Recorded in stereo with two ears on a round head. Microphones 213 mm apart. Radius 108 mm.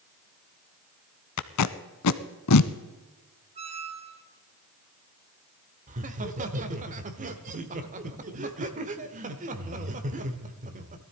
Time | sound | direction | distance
1.4 | tape being pulled | 80° left | 0.7 m
3.5 | a squeak | 30° right (ahead or behind) | 1.6 m
5.9 | laughter | 30° right (ahead or behind) | 1.1 m